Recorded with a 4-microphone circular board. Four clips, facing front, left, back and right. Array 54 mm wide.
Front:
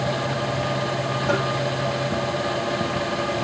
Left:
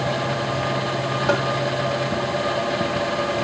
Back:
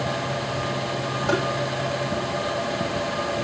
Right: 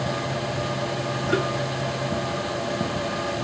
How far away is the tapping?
About 7 m.